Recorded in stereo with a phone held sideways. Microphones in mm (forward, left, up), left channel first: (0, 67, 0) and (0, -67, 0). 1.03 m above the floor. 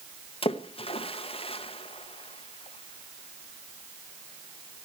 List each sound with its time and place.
0.4 s a splash: 45° left (ahead or behind), 0.8 m